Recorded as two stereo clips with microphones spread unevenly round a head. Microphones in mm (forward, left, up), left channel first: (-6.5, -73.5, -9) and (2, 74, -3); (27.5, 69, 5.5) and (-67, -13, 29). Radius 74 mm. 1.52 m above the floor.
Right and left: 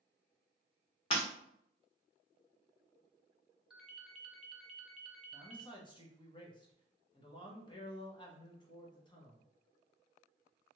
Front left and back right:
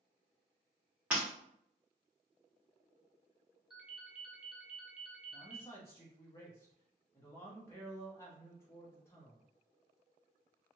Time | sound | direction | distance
1.1 | breaking glass | 80° right | 1.3 m
3.7 | a ringtone | 170° left | 0.6 m
5.3 | a man speaking | 35° right | 0.8 m